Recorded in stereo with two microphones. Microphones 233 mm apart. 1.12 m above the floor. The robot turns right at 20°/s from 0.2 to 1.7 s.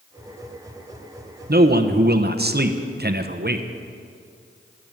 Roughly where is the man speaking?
Right.